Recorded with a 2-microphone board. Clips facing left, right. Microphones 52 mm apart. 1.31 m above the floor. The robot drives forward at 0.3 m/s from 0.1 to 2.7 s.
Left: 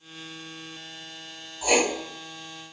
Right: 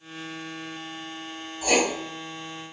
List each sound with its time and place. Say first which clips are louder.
1.6 s writing: even; 10° left (ahead or behind), 1.2 m